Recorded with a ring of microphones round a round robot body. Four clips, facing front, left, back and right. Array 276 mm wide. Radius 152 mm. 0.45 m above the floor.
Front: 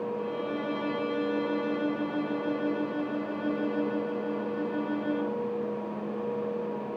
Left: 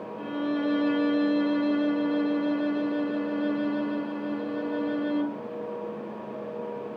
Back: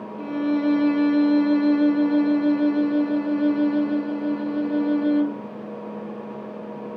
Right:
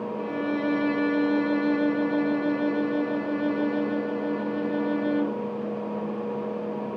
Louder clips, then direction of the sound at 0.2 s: Left 1 dB, back 9 dB; 160° right.